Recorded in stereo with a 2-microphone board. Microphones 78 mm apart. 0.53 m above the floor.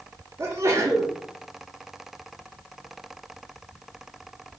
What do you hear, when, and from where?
0.4 s a sneeze: 35° right (ahead or behind), 0.8 m